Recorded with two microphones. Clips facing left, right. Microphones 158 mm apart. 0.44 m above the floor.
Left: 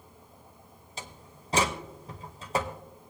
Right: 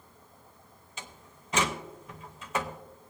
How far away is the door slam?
About 1.0 m.